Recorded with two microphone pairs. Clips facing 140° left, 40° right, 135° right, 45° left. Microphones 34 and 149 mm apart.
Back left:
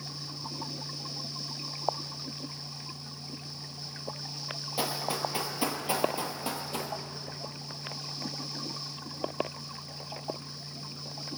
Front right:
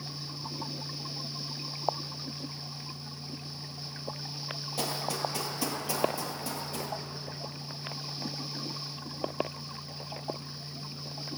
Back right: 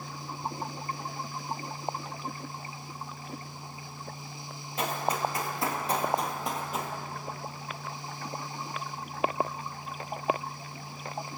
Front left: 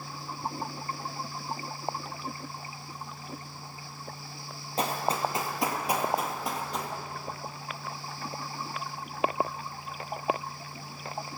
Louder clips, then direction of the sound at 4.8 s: Back left 1 dB, front left 1 dB; 75° left.